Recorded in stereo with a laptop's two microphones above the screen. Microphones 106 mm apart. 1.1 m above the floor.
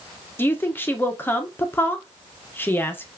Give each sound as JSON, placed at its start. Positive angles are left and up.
{"t": 0.4, "sound": "a woman speaking", "side_deg": 20, "distance_m": 0.8}